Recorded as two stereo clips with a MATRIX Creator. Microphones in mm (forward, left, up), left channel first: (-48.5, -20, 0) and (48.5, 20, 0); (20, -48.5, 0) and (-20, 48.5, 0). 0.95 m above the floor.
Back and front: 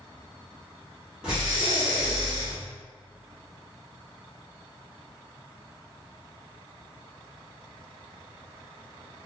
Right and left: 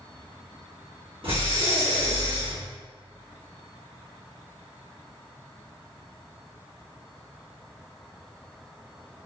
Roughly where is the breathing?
Left.